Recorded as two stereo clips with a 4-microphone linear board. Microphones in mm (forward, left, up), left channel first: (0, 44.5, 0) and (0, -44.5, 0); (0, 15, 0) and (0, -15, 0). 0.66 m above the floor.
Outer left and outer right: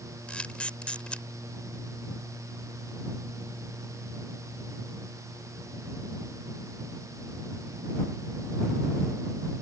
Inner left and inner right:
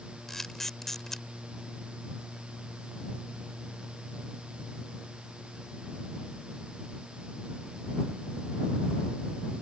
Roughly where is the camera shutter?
Centre.